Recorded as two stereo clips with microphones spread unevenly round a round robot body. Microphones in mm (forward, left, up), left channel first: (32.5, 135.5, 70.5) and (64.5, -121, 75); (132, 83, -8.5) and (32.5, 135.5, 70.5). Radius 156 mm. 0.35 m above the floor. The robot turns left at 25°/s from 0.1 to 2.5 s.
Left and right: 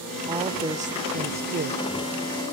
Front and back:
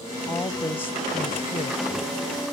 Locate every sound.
0.3 s a woman speaking: 15° right; by 1.8 s 50° right